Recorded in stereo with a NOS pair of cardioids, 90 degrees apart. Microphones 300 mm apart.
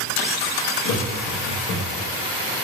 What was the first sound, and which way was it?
Laughter, 60° left.